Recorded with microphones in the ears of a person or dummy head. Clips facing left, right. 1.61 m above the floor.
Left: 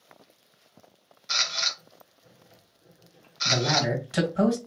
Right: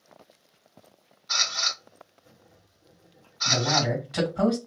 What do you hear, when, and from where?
1.3 s a camera shutter: 25° left (ahead or behind), 0.9 m
3.5 s a man speaking: 40° left (ahead or behind), 1.7 m